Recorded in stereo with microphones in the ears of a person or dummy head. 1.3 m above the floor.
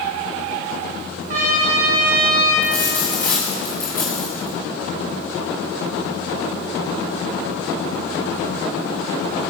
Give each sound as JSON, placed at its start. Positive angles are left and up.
{"t": 1.3, "sound": "a trumpet", "side_deg": -50, "distance_m": 2.5}
{"t": 2.6, "sound": "a dropped coin", "side_deg": 15, "distance_m": 2.5}